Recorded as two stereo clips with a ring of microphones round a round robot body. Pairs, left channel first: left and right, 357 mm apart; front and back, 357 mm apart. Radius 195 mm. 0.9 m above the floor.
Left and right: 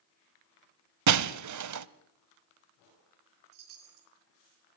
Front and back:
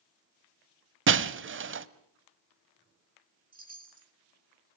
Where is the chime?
110° right, 5 m.